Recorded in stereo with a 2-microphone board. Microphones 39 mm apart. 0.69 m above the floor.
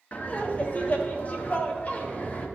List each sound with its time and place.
0.1 s laughter: 40° left (ahead or behind), 1.3 m